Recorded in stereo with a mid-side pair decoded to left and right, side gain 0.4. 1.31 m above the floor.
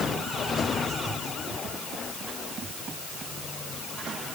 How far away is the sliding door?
No sliding door in this recording.